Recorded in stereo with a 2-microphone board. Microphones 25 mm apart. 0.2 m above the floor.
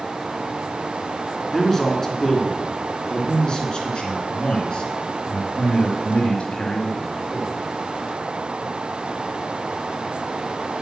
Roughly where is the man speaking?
Centre.